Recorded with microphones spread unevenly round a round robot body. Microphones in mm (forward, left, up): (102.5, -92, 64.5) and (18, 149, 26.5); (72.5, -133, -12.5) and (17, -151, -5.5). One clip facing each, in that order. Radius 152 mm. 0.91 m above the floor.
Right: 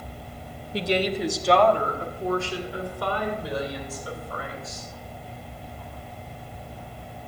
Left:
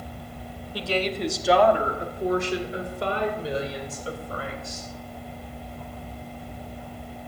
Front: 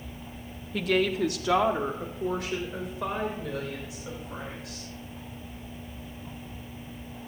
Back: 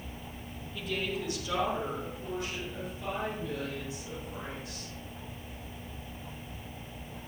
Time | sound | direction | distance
0.7 | a woman speaking | 5° right | 1.0 m